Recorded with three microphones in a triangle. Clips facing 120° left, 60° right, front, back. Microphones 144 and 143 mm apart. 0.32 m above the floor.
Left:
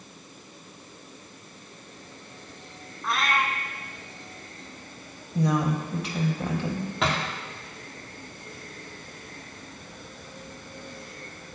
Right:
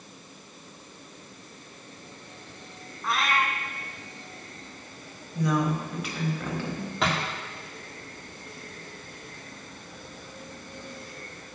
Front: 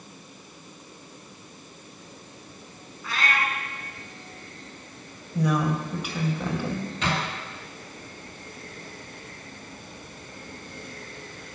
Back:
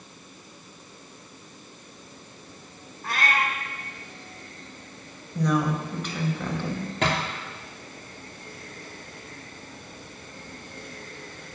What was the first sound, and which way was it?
A cat meowing, 150° right.